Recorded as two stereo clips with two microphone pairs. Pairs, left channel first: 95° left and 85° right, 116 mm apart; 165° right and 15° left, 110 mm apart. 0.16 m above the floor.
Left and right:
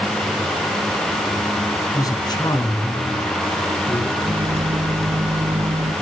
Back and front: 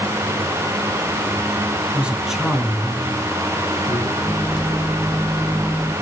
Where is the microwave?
70° right, 5 m.